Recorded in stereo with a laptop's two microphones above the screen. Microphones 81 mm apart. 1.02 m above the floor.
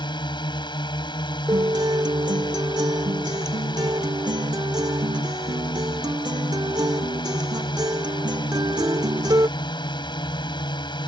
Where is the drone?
70° left (ahead or behind).